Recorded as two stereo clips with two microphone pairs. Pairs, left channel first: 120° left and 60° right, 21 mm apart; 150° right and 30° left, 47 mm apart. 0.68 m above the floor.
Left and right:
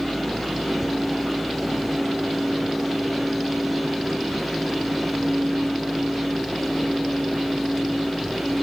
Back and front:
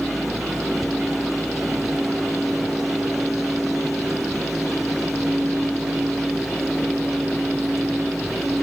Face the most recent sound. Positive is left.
No sound to turn to.